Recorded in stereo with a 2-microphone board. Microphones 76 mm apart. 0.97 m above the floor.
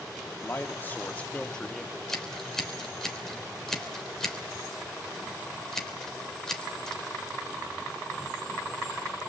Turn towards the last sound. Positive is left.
turn(degrees=5)  # may be behind; listen again after turning